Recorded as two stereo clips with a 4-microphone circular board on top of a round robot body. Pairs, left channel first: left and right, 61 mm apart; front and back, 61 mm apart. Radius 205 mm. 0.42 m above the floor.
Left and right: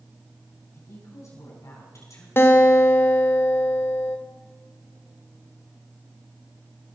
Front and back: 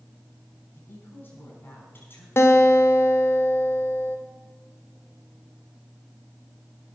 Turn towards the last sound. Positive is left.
turn(degrees=45)